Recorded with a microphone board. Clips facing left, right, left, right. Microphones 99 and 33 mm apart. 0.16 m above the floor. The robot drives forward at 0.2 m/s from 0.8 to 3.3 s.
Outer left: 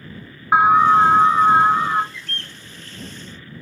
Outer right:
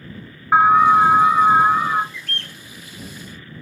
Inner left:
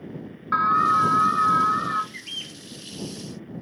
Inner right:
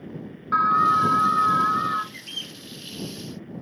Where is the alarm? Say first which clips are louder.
Even, even; 10° left (ahead or behind), 0.8 m.